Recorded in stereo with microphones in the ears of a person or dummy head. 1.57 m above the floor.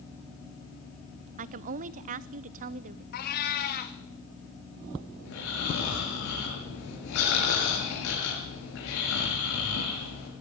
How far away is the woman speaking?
About 0.6 m.